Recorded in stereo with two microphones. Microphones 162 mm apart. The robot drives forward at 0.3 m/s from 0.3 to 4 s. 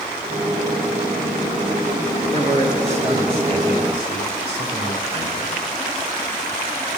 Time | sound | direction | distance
2.3 | a man speaking | 40° right (ahead or behind) | 2.0 m